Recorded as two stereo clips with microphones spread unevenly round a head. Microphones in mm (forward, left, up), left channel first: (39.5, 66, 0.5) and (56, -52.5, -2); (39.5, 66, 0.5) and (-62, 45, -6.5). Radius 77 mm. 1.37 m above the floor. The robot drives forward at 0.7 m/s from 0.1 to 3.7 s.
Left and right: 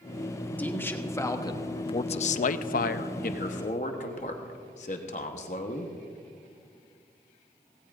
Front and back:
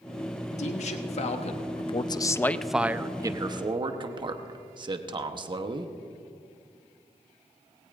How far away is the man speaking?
About 1.5 m.